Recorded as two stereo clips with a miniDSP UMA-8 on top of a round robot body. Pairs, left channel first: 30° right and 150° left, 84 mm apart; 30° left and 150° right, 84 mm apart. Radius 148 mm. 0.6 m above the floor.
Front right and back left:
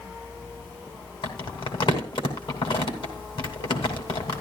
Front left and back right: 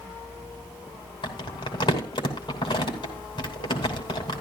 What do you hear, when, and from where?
1.2 s crumpling: straight ahead, 2.5 m